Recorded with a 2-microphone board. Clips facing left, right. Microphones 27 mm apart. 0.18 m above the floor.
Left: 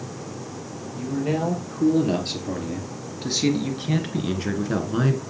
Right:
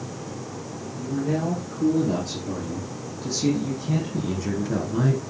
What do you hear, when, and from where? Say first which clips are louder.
1.0 s a man speaking: left 1 dB; 70° left (ahead or behind), 3.5 m; by 5.2 s 35° left (ahead or behind), 1.6 m